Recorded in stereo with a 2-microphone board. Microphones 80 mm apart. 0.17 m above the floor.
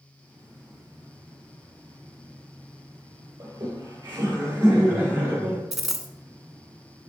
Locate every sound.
3.4 s laughter: 40° right (ahead or behind), 4 m; by 5.6 s 25° right (ahead or behind), 4 m
5.7 s a dropped coin: 5° right (ahead or behind), 0.8 m